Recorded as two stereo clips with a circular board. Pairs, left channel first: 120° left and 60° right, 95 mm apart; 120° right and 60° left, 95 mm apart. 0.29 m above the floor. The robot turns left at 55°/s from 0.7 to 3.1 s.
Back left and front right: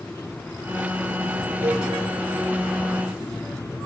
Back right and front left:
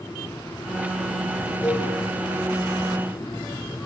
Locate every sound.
1.6 s a cowbell: 50° right, 5 m; by 1.9 s 65° right, 5 m